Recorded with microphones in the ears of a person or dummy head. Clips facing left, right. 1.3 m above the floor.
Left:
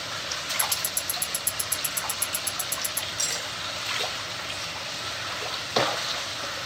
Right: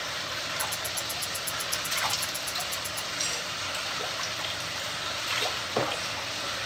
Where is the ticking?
45° left (ahead or behind), 1.5 m.